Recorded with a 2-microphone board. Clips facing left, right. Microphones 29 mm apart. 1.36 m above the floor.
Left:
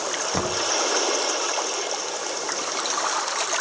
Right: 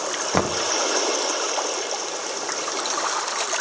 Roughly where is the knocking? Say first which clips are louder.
Right 5 dB; right.